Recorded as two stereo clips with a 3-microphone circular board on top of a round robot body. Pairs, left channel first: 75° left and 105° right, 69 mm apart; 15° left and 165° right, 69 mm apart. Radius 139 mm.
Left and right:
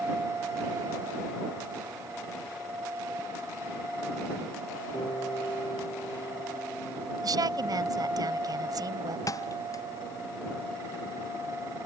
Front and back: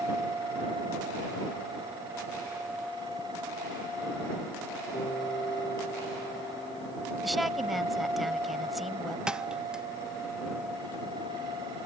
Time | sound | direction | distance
4.9 | a piano | 40° left | ?
7.2 | a woman speaking | 75° right | ?
9.3 | a thud | 115° left | ?